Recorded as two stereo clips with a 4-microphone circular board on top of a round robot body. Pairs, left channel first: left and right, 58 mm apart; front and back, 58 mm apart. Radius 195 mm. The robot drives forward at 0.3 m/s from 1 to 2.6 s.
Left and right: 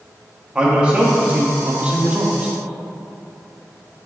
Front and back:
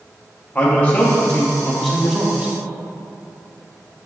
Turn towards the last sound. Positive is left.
turn(degrees=-130)